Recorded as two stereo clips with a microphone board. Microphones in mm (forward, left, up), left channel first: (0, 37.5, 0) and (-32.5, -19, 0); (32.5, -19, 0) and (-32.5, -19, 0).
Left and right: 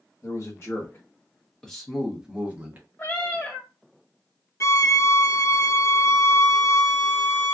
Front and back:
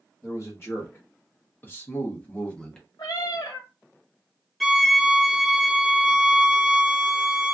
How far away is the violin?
About 0.6 m.